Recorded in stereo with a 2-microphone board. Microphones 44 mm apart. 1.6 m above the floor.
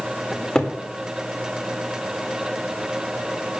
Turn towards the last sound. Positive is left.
turn(degrees=20)  # may be behind; listen again after turning